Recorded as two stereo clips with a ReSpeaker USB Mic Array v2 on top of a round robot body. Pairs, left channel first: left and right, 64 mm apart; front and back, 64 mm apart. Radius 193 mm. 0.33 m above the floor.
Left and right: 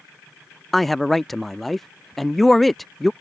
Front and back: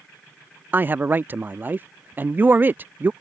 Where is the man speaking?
175° left.